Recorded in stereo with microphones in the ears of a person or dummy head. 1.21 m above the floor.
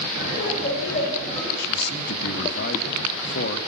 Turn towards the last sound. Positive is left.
turn(degrees=60)  # may be behind; listen again after turning